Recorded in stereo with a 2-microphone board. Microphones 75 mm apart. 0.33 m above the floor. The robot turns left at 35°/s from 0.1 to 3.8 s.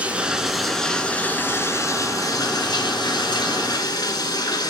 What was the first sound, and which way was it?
Running water, 160° right.